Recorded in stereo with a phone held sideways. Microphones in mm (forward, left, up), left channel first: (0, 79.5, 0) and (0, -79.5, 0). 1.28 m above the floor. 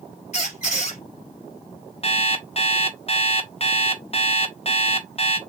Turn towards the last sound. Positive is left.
turn(degrees=40)  # may be behind; listen again after turning